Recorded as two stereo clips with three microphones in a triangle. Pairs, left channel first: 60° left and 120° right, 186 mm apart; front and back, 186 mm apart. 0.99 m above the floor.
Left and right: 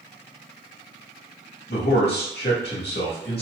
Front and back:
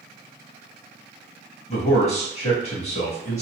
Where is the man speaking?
50° left, 1.8 m.